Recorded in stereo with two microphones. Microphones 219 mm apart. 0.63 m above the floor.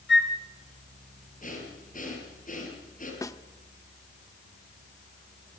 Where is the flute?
55° left (ahead or behind), 2 m.